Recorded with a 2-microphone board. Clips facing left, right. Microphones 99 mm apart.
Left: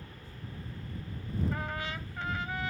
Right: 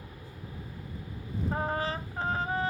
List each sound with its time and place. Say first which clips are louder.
0.0 s a helicopter: right 2 dB; 15° right (ahead or behind); by 2.7 s 30° right (ahead or behind)
1.5 s a trumpet: right 6 dB; 35° right (ahead or behind)